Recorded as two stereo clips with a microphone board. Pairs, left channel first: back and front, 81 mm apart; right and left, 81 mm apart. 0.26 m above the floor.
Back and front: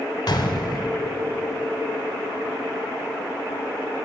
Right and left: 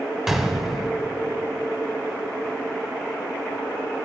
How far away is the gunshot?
About 0.5 m.